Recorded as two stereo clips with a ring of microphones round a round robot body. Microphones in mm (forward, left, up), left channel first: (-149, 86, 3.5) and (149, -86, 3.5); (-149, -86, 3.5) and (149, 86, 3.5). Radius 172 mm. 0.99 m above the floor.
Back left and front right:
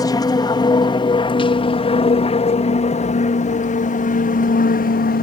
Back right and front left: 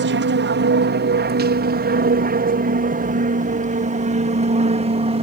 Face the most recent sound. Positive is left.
turn(degrees=95)